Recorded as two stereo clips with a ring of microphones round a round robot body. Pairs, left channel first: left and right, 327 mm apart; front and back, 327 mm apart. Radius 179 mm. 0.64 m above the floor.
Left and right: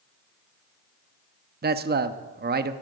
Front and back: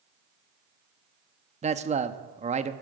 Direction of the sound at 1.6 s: 125° right.